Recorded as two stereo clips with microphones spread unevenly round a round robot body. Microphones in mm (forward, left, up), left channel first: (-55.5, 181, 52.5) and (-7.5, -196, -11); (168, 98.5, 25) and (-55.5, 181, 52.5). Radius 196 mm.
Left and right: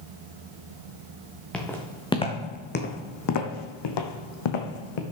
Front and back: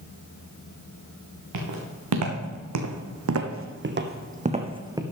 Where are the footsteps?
175° right, 2.5 m; by 5.0 s 85° left, 2.0 m.